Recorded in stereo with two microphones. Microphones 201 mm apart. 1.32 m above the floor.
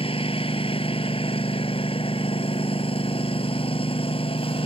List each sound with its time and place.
0.0 s a lawn mower: 25° left (ahead or behind)